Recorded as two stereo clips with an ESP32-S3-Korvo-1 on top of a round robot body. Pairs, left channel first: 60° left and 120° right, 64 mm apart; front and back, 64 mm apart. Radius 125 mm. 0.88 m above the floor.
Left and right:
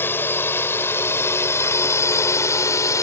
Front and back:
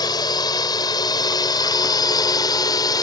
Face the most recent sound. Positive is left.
turn(degrees=20)